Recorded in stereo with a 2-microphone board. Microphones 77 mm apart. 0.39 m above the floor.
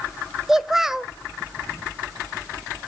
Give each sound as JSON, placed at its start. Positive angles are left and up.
{"t": 0.5, "sound": "a child speaking", "side_deg": -5, "distance_m": 1.1}